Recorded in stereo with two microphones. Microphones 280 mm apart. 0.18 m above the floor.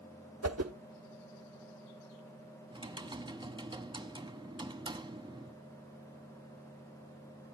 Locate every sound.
0.4 s a whoosh: 65° right (ahead or behind), 0.8 m
2.7 s typing on a keyboard: 15° right (ahead or behind), 1.0 m